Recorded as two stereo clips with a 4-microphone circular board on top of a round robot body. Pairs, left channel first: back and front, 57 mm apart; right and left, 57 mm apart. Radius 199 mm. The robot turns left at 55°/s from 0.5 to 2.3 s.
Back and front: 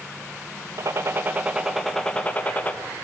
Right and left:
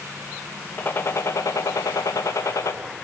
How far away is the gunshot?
About 2 m.